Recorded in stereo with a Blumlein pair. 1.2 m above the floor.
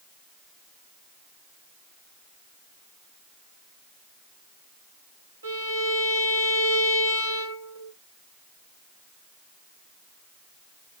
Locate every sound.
5.4 s a violin: 65° right, 1.0 m